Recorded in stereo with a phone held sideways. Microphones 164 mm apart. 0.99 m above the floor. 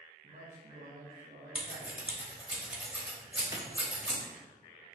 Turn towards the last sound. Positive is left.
turn(degrees=-20)  # may be behind; listen again after turning